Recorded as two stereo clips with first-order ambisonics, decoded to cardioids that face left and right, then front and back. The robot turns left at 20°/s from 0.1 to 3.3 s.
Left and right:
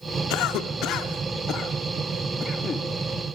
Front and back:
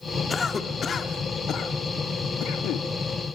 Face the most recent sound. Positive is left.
turn(degrees=10)